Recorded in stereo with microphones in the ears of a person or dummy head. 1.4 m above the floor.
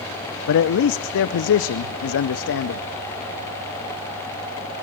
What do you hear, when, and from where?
0.5 s a man speaking: 70° left (ahead or behind), 0.5 m